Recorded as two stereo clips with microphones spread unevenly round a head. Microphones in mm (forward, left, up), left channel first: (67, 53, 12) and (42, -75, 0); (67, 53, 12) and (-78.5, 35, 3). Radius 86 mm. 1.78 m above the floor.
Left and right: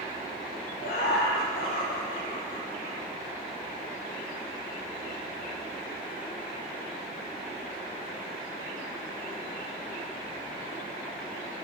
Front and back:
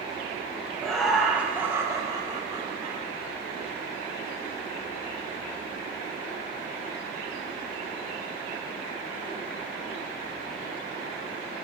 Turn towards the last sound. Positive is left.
turn(degrees=130)